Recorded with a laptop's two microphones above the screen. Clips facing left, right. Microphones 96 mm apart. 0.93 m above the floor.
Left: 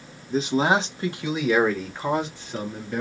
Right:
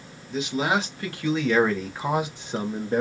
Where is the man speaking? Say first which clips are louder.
Left 4 dB; 40° left (ahead or behind), 1.3 m; by 3.0 s 35° right (ahead or behind), 1.0 m.